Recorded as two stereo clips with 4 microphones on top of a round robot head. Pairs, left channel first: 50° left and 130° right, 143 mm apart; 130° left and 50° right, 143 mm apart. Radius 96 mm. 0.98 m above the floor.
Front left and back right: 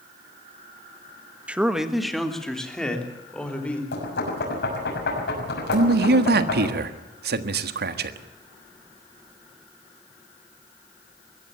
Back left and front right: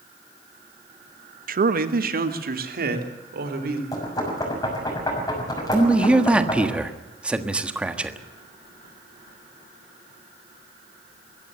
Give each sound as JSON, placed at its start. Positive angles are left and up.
{"t": 1.5, "sound": "a man speaking", "azimuth_deg": -45, "distance_m": 1.3}
{"t": 3.9, "sound": "knocking", "azimuth_deg": 60, "distance_m": 6.5}
{"t": 5.7, "sound": "a man speaking", "azimuth_deg": -135, "distance_m": 1.5}